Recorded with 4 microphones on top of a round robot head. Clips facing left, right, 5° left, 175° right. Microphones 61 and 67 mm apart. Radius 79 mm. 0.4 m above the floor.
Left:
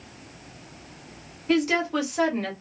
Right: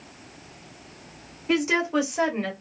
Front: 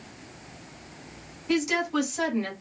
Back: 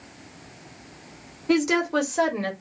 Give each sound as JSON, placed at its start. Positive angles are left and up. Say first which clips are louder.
{"t": 1.5, "sound": "a woman speaking", "louder": "even, back 4 dB", "azimuth_deg": -165, "distance_m": 1.8}